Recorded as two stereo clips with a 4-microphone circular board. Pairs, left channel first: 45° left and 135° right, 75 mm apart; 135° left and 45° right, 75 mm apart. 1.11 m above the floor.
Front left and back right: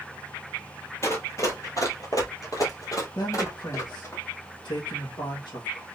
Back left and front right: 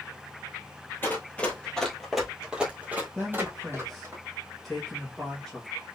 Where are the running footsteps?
80° left, 1.6 m; by 4.2 s straight ahead, 2.5 m.